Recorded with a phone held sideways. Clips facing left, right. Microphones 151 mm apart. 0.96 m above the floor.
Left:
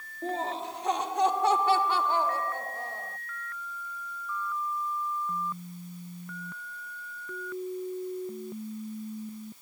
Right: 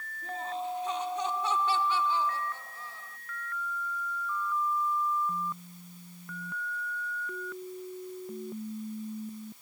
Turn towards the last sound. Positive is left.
turn(degrees=55)  # may be behind; listen again after turning